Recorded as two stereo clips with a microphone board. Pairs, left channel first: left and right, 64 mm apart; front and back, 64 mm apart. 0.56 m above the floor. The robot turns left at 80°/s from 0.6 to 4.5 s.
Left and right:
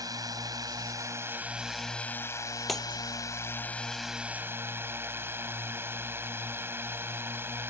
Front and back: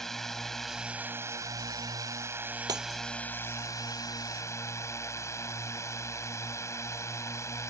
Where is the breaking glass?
Straight behind; by 3.0 s 155° left.